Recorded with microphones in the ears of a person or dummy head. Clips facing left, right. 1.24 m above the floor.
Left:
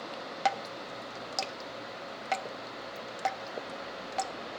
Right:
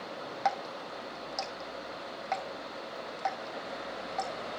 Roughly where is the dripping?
Left.